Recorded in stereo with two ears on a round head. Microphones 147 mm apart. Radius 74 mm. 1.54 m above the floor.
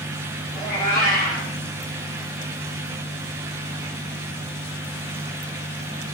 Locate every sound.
0.6 s a cat meowing: 55° left (ahead or behind), 2 m